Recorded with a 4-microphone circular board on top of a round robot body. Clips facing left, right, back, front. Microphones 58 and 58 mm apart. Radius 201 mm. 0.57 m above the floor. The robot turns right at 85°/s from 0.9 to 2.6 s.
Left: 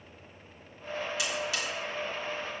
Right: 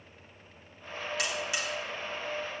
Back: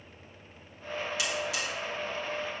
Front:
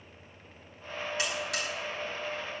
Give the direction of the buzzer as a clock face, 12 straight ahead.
2 o'clock.